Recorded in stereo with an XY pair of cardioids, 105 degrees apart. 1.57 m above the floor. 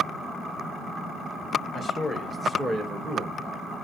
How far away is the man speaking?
About 1.1 m.